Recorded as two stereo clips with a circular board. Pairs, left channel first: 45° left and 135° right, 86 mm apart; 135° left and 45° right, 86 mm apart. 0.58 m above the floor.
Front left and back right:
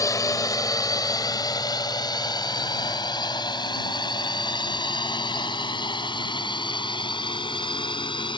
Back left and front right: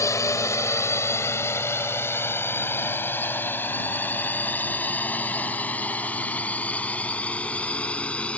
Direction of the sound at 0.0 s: 85° left.